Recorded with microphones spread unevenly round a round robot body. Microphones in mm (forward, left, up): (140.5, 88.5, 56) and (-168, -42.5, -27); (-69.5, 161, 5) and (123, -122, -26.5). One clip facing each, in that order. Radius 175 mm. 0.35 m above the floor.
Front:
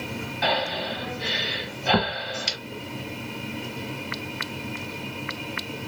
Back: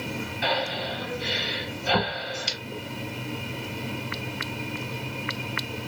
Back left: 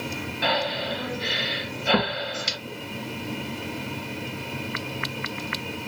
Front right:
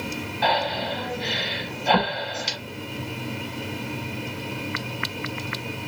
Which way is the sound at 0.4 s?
50° left.